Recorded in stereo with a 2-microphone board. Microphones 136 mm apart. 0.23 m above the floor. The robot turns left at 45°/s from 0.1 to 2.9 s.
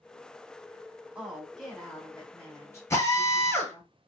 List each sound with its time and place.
1.1 s a woman speaking: 10° right (ahead or behind), 1.6 m; by 3.9 s 25° left (ahead or behind), 1.6 m
2.9 s a drill: 20° left (ahead or behind), 1.8 m